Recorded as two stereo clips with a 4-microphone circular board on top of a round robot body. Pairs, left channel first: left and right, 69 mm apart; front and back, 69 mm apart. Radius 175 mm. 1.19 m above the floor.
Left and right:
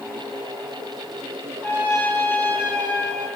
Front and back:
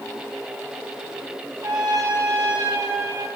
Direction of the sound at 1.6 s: 155° left.